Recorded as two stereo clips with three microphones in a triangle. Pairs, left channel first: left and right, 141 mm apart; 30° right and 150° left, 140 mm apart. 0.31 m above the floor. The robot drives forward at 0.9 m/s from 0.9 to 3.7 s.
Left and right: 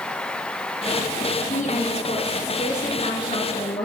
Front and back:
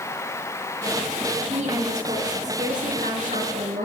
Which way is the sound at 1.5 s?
115° left.